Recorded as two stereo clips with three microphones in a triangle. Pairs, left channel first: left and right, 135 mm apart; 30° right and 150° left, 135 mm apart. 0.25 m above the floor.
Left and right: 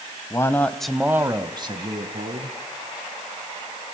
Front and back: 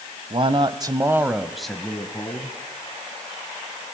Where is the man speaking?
145° left, 1.2 m; by 2.6 s 95° right, 1.8 m.